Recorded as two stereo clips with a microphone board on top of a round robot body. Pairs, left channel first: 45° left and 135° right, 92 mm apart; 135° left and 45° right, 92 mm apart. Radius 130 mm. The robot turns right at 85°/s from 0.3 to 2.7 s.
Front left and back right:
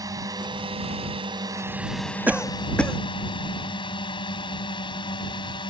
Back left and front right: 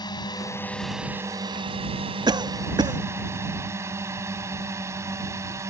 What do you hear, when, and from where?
0.0 s a drone: 175° left; by 5.7 s 10° left
2.3 s a cough: 65° right; by 3.0 s 30° right